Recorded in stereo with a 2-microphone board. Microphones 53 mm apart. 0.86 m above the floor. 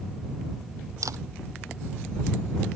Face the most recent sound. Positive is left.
turn(degrees=-85)